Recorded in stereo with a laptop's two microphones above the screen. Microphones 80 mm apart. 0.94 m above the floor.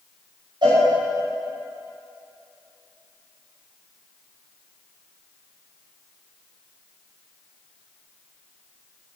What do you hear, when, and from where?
0.6 s a cowbell: 70° right (ahead or behind), 5.5 m